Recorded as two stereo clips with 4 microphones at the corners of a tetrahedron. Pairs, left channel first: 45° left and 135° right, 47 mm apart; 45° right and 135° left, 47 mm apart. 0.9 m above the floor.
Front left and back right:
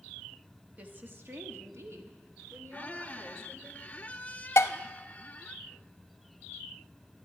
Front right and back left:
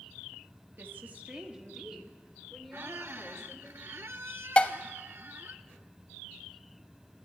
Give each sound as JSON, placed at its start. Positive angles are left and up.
{"t": 0.8, "sound": "a woman speaking", "azimuth_deg": 170, "distance_m": 1.4}
{"t": 2.7, "sound": "a squeak", "azimuth_deg": 100, "distance_m": 0.6}
{"t": 4.6, "sound": "dishes clattering", "azimuth_deg": 20, "distance_m": 0.5}